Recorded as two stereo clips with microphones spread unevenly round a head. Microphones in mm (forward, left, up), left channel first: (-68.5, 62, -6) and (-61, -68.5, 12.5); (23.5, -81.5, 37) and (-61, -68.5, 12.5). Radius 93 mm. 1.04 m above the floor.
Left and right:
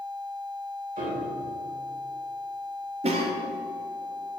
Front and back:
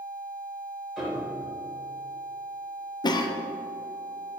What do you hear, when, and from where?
1.0 s a piano: 100° right, 3 m
3.0 s a cough: 45° right, 0.9 m